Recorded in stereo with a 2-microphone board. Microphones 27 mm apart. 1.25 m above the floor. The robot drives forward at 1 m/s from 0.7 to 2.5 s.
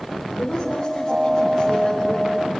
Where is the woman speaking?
35° left (ahead or behind), 5.5 m; by 2.4 s 25° left (ahead or behind), 7 m.